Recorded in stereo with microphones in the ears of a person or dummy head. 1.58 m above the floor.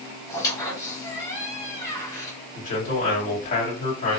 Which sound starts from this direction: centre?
A squeak, at 0.3 s.